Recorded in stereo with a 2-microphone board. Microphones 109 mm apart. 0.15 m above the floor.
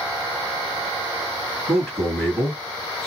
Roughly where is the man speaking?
Centre.